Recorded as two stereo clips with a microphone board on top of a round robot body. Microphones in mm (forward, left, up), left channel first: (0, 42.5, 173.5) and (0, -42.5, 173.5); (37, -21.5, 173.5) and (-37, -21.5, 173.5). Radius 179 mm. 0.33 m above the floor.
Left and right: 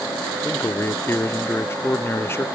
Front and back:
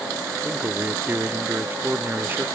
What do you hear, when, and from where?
0.4 s a man speaking: 135° left